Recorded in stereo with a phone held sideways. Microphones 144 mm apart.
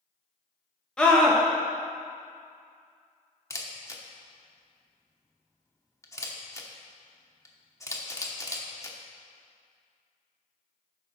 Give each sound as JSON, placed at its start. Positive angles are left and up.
{"t": 1.0, "sound": "a scream", "side_deg": 5, "distance_m": 1.0}
{"t": 3.5, "sound": "a camera shutter", "side_deg": 20, "distance_m": 1.0}